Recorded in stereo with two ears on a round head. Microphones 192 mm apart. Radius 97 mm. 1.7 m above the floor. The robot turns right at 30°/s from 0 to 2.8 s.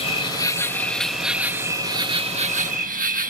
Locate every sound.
0.0 s an insect: 145° left; by 3.3 s 130° right